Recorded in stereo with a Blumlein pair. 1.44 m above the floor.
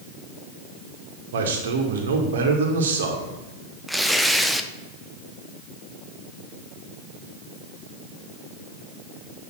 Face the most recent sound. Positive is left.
turn(degrees=0)